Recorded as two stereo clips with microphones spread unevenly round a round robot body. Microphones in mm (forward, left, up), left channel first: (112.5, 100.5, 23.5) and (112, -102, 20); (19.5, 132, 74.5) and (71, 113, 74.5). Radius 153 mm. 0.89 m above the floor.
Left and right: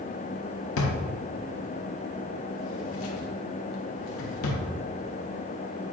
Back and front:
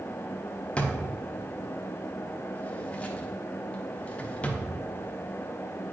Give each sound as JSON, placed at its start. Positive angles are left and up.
{"t": 0.8, "sound": "a drawer", "azimuth_deg": 90, "distance_m": 1.2}